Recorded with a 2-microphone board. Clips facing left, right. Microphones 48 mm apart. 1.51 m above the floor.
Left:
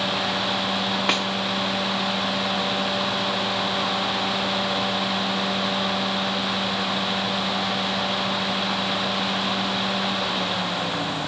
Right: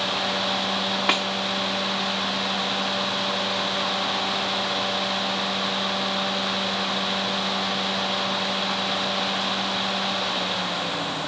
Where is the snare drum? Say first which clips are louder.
Right 1 dB; centre (ahead or behind), 1.2 m.